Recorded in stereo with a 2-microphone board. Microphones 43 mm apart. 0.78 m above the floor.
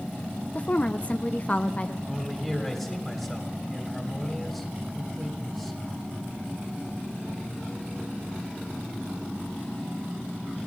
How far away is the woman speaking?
About 0.5 m.